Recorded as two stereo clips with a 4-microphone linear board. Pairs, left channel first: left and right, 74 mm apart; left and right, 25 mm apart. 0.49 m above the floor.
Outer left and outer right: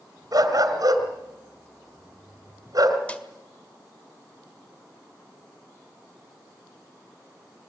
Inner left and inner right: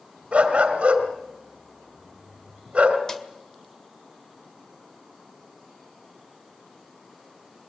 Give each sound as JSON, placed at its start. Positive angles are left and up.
{"t": 0.3, "sound": "a dog barking", "side_deg": -55, "distance_m": 2.5}
{"t": 3.1, "sound": "a snare drum", "side_deg": 20, "distance_m": 1.9}